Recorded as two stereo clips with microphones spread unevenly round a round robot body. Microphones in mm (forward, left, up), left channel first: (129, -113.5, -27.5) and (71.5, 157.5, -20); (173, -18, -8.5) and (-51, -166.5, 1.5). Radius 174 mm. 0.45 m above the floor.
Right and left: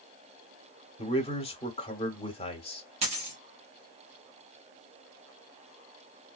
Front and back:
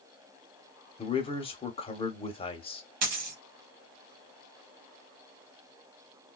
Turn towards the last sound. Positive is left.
turn(degrees=175)